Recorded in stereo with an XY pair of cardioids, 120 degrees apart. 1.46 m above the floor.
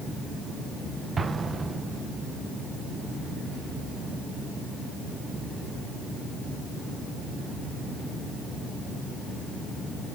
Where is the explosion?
30° right, 1.4 m.